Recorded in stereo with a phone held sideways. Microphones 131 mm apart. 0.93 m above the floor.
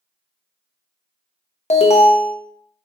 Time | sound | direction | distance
1.7 | an alarm | 55° left (ahead or behind) | 0.6 m